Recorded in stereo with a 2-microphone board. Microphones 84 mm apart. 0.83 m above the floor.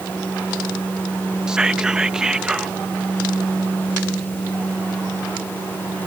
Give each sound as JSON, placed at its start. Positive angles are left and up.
{"t": 1.5, "sound": "whispering", "side_deg": -10}